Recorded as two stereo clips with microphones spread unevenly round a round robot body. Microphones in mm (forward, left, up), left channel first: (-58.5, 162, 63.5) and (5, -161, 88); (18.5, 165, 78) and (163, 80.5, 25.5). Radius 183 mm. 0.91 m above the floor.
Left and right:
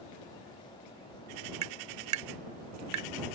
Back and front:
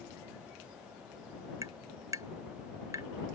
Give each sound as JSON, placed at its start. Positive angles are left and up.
{"t": 1.6, "sound": "tapping", "azimuth_deg": -70}